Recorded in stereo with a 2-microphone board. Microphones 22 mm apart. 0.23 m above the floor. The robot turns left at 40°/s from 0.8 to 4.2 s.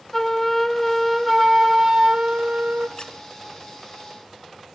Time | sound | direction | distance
0.1 | a flute | 10° left | 1.1 m
3.0 | a squeak | 45° left (ahead or behind) | 1.8 m